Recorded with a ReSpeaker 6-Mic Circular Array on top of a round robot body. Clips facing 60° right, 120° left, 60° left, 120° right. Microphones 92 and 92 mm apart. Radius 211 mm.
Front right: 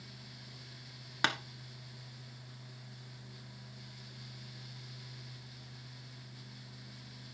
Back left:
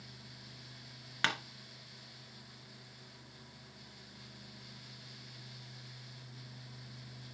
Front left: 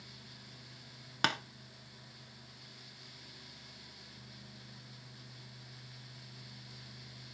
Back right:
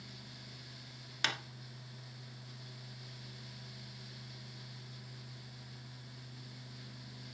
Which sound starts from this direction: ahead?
Tapping, at 1.2 s.